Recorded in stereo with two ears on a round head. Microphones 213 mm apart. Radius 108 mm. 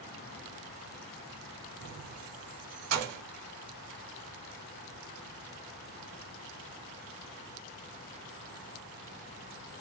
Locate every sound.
1.8 s keys jangling: 70° right (ahead or behind), 1.7 m